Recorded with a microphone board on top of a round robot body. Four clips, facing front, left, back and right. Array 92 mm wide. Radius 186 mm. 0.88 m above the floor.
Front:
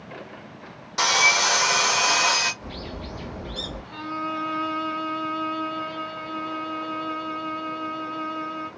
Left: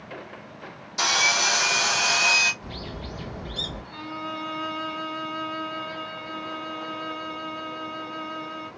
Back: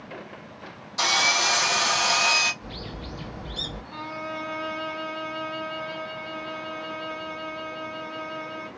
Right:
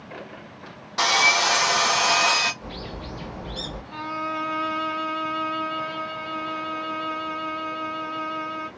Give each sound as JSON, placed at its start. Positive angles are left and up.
{"t": 1.0, "sound": "sawing", "azimuth_deg": -50, "distance_m": 1.3}
{"t": 2.6, "sound": "a bird", "azimuth_deg": -50, "distance_m": 1.5}
{"t": 3.9, "sound": "a violin", "azimuth_deg": -95, "distance_m": 1.4}